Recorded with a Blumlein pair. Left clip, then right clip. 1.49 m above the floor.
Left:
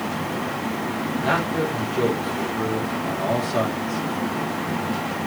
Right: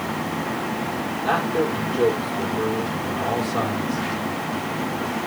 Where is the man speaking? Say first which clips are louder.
Right 1 dB; 65° left, 4 m.